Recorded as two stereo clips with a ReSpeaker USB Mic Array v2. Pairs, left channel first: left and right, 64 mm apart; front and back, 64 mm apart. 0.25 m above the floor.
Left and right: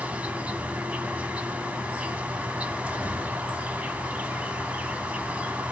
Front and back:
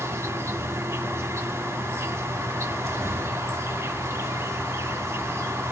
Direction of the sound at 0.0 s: 155° right.